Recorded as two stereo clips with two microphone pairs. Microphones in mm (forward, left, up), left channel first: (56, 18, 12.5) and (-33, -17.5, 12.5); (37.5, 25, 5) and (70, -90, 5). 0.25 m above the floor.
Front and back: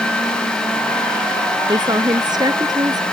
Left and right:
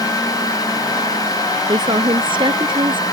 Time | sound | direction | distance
1.7 | a woman speaking | 120° right | ?